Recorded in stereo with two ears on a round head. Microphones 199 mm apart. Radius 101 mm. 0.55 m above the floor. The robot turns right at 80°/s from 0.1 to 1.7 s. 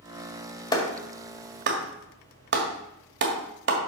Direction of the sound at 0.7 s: 20° left (ahead or behind).